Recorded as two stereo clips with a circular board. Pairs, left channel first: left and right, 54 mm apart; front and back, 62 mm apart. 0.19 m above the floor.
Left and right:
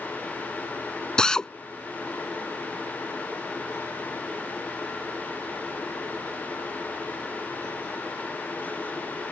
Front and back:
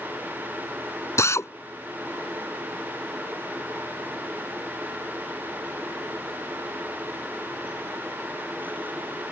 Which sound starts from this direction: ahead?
A drill, at 1.2 s.